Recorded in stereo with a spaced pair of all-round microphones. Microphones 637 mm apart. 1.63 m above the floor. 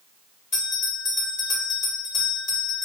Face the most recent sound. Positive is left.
turn(degrees=85)